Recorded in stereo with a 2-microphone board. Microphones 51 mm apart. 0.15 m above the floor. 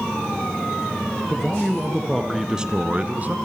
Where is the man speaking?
10° left (ahead or behind), 3 m; by 3.4 s 35° right (ahead or behind), 1.9 m.